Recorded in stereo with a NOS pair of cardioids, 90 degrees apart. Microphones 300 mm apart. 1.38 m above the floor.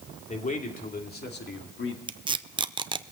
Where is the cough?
I don't hear a cough.